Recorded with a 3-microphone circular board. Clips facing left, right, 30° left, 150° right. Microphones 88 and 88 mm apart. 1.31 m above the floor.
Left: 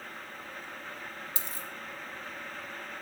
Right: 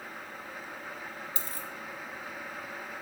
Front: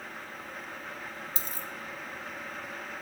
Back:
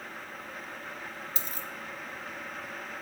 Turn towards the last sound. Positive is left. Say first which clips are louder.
# right 1 dB, even
turn(degrees=40)